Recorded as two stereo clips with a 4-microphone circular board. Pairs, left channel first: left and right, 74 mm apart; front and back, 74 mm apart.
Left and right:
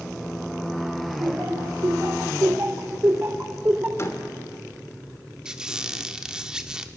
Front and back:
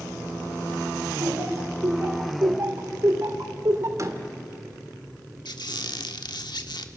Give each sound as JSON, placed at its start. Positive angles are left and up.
{"t": 1.2, "sound": "laughter", "azimuth_deg": -135, "distance_m": 3.0}
{"t": 4.0, "sound": "a door slam", "azimuth_deg": 135, "distance_m": 1.9}
{"t": 5.5, "sound": "a squeak", "azimuth_deg": -10, "distance_m": 1.3}